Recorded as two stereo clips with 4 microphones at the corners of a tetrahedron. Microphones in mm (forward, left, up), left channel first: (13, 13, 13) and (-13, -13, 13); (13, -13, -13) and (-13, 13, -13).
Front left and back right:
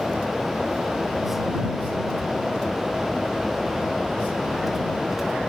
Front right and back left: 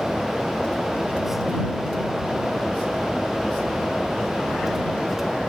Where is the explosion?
No explosion in this recording.